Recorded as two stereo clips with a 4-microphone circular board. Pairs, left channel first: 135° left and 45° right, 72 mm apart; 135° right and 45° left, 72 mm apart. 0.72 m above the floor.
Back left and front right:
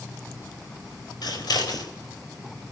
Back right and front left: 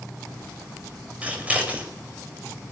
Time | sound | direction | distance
1.2 | scissors | 115° left | 4 m